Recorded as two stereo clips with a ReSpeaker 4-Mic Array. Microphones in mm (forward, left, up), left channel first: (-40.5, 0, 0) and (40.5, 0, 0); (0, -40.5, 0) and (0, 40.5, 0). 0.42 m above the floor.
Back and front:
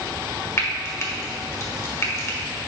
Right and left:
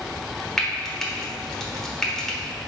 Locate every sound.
0.6 s frying: 175° right, 1.1 m